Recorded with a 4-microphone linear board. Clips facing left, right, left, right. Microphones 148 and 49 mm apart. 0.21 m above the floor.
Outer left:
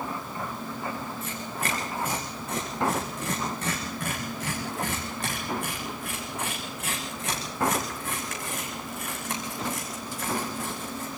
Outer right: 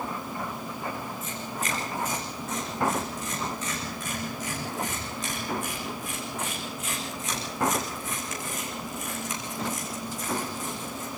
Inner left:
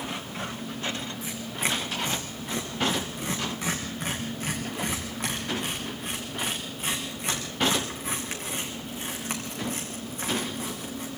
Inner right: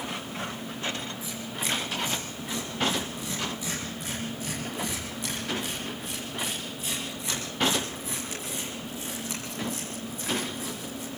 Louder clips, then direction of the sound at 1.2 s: Outer left 1 dB, inner left 2 dB; 60° left (ahead or behind).